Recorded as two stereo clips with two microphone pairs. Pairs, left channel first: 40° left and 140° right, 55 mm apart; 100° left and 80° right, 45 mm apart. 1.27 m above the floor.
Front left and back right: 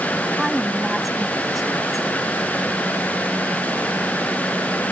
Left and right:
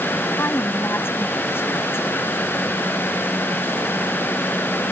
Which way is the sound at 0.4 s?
130° left.